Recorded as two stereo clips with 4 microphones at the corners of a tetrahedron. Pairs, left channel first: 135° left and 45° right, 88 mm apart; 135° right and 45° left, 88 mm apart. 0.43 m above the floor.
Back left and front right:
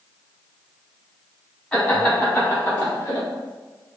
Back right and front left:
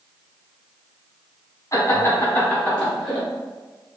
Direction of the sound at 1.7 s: 155° right.